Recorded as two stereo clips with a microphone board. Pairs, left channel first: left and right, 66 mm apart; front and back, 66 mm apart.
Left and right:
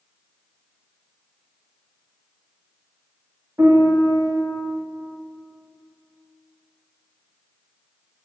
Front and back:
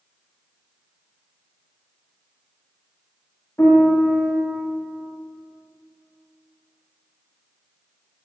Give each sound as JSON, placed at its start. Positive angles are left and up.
{"t": 3.6, "sound": "a piano", "azimuth_deg": -50, "distance_m": 1.8}